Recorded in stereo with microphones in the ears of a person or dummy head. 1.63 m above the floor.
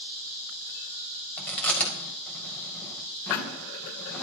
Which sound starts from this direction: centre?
Chewing, at 1.4 s.